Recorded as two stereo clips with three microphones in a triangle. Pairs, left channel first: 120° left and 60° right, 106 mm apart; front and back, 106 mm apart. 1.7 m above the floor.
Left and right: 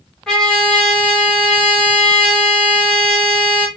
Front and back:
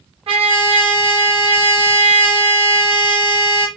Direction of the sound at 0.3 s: 155° right.